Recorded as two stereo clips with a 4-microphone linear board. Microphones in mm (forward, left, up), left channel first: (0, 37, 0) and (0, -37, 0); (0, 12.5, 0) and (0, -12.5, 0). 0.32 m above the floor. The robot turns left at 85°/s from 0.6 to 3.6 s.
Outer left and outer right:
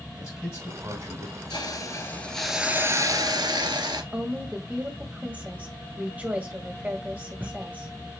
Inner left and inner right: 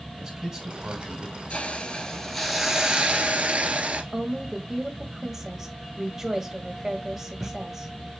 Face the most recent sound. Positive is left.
turn(degrees=-20)  # may be behind; listen again after turning